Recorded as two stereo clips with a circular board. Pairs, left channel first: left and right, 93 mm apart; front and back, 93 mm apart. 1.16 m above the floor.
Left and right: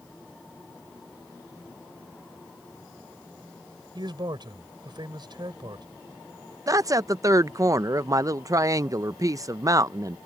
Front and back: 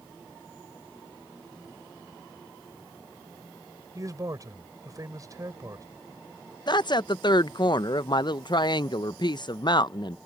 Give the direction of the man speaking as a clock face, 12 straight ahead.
4 o'clock.